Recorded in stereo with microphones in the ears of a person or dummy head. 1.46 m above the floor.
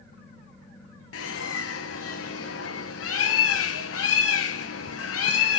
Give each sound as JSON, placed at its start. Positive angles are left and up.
{"t": 1.1, "sound": "a bird", "side_deg": 70, "distance_m": 0.7}